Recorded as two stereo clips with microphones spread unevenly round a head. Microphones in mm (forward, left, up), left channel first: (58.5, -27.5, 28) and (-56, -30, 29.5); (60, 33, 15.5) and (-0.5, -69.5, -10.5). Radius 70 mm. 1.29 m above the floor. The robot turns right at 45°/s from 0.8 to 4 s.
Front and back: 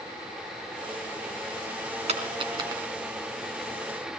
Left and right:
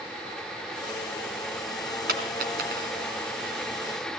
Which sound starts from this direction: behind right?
A dropped coin, at 2.1 s.